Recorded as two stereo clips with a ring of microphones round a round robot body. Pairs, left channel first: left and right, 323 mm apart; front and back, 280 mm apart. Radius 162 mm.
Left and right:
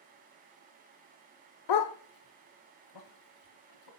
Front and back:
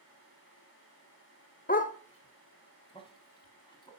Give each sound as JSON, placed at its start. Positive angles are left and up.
{"t": 1.7, "sound": "a dog barking", "azimuth_deg": 65, "distance_m": 0.6}